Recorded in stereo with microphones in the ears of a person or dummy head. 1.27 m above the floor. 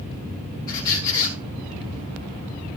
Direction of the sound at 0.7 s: 20° left (ahead or behind).